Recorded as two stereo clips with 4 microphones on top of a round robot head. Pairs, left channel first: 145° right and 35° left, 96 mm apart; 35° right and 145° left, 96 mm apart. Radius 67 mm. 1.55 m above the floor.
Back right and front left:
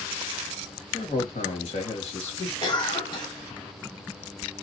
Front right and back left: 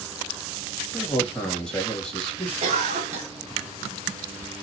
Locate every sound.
0.9 s a man speaking: 115° right, 1.6 m
2.6 s a cough: 165° left, 1.0 m